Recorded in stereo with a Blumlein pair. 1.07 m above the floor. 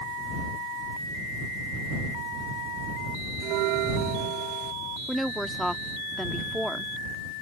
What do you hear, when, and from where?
3.4 s a bell: 40° right
5.1 s a woman speaking: straight ahead